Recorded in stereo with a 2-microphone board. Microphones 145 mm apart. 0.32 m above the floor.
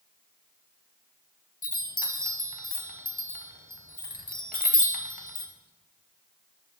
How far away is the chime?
About 0.6 m.